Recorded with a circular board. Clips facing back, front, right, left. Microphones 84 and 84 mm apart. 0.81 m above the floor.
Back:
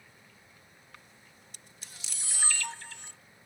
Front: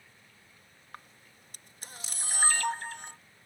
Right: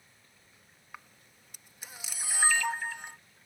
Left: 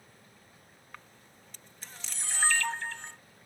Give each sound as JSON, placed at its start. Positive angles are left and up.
{"t": 0.9, "sound": "a camera shutter", "azimuth_deg": -10}